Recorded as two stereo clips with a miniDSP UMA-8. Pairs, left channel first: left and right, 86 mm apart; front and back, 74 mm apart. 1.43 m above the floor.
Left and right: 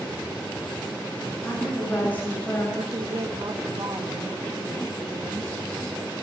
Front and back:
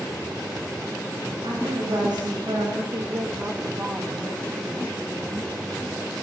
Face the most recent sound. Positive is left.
turn(degrees=-125)